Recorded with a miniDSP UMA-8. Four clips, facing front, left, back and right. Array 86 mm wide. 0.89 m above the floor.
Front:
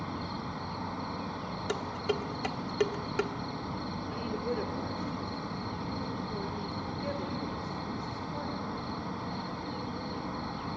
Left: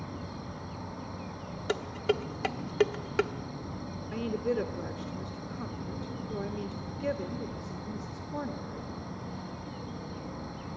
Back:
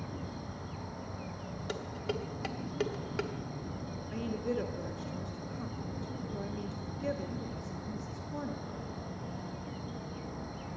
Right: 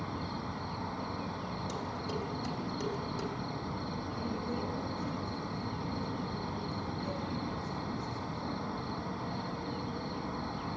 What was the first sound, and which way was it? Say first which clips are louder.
An insect: right 3 dB, front 5 dB; 30° right.